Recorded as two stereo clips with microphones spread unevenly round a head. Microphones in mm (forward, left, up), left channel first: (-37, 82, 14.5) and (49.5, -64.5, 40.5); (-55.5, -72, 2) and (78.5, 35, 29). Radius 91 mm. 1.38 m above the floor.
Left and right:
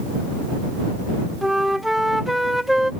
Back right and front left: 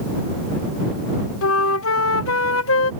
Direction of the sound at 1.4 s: 145° right.